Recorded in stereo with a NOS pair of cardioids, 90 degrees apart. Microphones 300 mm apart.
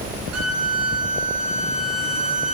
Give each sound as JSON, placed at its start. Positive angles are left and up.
{"t": 0.3, "sound": "a violin", "azimuth_deg": -55, "distance_m": 3.5}